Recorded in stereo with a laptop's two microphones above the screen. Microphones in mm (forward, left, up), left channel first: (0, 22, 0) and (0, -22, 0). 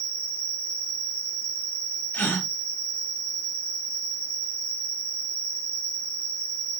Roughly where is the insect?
Right.